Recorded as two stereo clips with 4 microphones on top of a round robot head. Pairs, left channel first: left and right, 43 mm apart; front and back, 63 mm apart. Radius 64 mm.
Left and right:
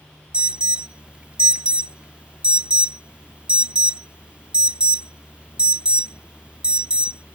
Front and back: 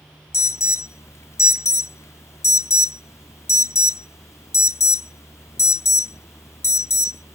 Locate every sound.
0.3 s an alarm: 30° right